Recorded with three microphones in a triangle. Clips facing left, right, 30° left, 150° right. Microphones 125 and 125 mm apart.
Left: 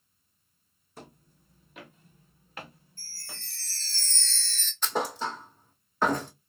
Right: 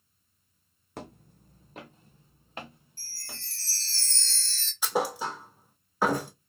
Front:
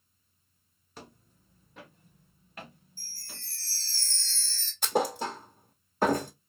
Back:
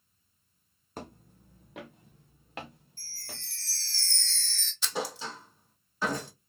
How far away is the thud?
About 1.0 m.